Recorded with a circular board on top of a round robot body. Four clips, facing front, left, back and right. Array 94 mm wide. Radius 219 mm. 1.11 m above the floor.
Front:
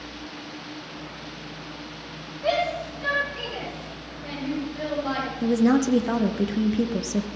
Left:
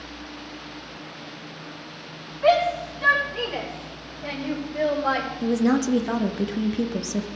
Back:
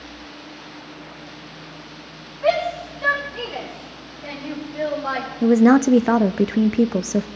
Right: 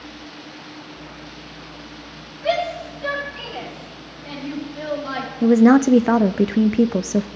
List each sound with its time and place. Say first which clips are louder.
2.4 s a shout: left 3 dB, back 4 dB; 125° left, 5.5 m
5.4 s a woman speaking: right 10 dB, back 7 dB; 135° right, 0.6 m